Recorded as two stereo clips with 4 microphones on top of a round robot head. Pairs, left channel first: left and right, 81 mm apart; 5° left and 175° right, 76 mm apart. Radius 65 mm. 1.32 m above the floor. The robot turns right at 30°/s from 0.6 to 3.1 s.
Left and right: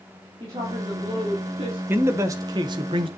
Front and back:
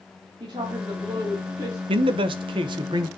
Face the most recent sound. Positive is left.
turn(degrees=-125)